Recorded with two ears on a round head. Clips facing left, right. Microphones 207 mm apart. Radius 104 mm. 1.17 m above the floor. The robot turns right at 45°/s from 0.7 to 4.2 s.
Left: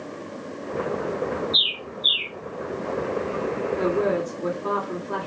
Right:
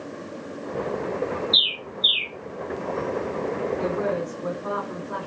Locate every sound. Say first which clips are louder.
1.5 s a bird: even; 50° right (ahead or behind), 2.5 m; by 2.3 s 80° right, 2.5 m
3.8 s a woman speaking: left 3 dB; 35° left (ahead or behind), 2.5 m; by 5.3 s 55° left (ahead or behind), 2.5 m